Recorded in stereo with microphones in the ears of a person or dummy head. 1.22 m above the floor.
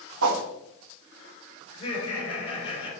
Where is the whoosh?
85° right, 1.3 m.